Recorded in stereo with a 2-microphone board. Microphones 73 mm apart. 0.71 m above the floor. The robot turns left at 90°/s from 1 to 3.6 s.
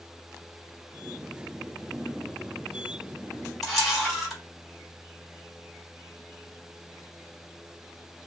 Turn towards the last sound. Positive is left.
turn(degrees=0)  # may be behind; listen again after turning